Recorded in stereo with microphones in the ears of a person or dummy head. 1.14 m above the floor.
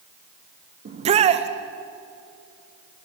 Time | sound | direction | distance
0.8 | a shout | 35° right (ahead or behind) | 1.3 m